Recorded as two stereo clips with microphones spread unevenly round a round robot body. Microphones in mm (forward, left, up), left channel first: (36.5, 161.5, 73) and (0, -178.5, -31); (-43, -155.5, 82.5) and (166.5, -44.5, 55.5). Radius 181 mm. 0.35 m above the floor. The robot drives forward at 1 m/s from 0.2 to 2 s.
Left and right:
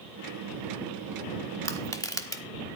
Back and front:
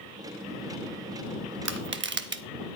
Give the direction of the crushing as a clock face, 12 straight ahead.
12 o'clock.